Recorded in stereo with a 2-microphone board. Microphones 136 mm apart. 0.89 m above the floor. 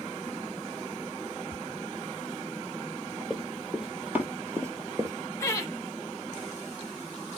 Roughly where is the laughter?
Left.